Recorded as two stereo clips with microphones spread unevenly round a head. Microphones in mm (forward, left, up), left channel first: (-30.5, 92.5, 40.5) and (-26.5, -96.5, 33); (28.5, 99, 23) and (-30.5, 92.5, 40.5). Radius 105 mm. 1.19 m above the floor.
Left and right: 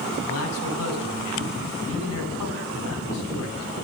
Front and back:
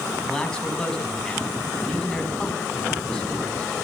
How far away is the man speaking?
About 10 m.